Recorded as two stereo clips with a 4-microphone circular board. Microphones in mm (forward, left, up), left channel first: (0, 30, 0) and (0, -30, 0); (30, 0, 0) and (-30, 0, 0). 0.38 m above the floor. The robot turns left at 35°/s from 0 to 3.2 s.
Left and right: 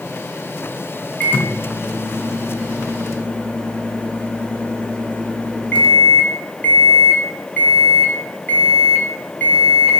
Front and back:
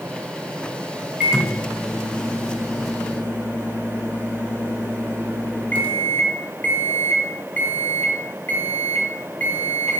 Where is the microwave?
115° left, 0.7 m; by 10.0 s 45° left, 0.7 m.